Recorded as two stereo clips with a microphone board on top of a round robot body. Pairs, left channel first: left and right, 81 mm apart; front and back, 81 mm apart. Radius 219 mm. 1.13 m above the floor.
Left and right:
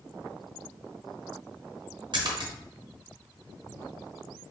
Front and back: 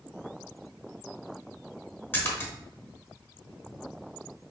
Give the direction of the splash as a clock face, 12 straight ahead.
2 o'clock.